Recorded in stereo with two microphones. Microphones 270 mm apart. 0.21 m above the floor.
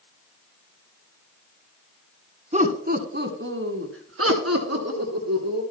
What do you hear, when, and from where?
2.5 s laughter: 25° right (ahead or behind), 1.5 m; by 5.6 s 70° right (ahead or behind), 3 m